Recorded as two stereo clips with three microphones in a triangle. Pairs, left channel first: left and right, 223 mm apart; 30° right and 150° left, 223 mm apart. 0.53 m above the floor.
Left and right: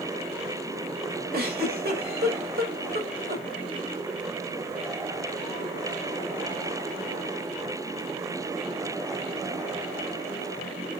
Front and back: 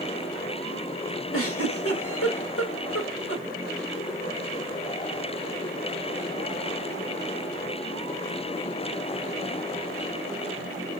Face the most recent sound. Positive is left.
turn(degrees=-40)